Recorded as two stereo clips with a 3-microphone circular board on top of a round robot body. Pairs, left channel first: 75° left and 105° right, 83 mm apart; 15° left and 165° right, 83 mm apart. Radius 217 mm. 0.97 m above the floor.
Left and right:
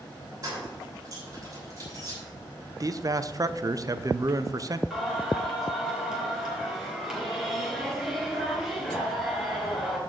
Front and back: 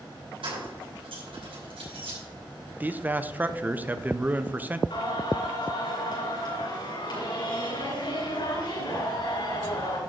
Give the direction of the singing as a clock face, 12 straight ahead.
1 o'clock.